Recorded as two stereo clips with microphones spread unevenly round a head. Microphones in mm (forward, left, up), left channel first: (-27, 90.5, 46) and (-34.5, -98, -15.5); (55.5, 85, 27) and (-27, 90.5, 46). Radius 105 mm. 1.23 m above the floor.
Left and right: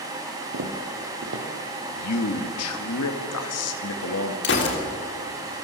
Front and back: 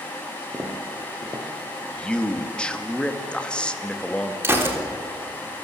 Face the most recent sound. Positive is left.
turn(degrees=115)